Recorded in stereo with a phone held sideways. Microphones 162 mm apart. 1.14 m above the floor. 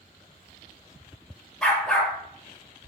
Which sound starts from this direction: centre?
A dog barking, at 1.6 s.